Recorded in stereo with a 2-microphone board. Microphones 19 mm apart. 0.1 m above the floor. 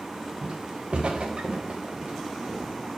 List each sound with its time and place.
0.4 s footsteps: 80° right, 1.3 m; by 2.7 s 75° right (ahead or behind), 2.5 m